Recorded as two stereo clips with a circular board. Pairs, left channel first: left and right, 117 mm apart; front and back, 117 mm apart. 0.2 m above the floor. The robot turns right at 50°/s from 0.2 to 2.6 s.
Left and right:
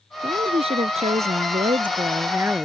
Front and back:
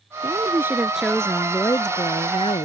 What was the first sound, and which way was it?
A woman speaking, 135° right.